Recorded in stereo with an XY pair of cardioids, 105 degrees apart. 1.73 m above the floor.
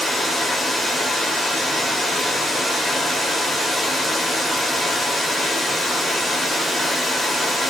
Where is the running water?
5° left, 1.3 m.